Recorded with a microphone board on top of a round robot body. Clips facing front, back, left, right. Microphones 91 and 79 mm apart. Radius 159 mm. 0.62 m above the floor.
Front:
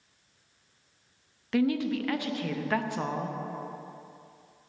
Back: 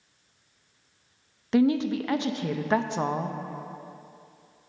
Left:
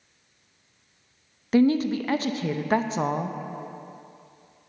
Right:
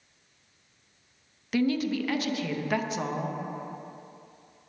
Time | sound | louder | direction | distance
1.5 | a woman speaking | back 4 dB, left 6 dB | 125° left | 0.6 m